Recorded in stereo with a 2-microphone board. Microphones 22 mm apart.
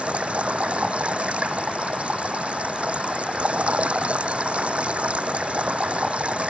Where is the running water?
70° right (ahead or behind).